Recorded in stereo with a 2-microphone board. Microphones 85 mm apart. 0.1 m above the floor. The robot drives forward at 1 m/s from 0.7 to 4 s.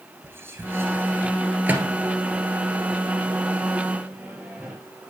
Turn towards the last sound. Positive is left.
turn(degrees=-15)  # may be behind; listen again after turning